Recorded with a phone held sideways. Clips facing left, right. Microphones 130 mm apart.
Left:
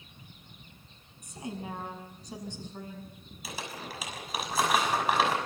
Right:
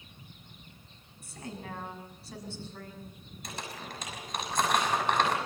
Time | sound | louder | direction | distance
1.2 | a woman speaking | left 3 dB | 15° left (ahead or behind) | 6 m
3.4 | crumpling | left 1 dB | 5° left (ahead or behind) | 6 m